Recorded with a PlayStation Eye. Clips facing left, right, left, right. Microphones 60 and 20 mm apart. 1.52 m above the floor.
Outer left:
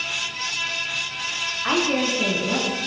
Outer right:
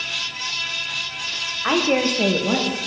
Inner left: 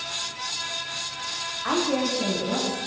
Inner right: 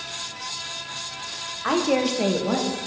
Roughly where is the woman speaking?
Centre.